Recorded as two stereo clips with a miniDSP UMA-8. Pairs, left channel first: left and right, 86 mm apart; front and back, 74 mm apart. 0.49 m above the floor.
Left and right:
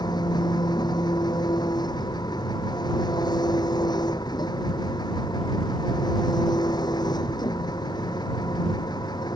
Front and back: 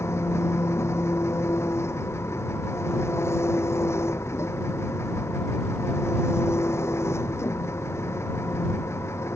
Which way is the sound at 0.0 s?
50° left.